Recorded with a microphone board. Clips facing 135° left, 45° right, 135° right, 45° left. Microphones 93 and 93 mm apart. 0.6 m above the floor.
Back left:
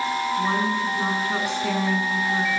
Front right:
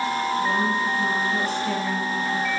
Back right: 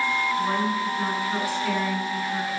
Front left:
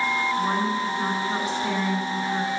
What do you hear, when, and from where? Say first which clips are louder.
0.4 s a woman speaking: even, even; 115° left, 7.5 m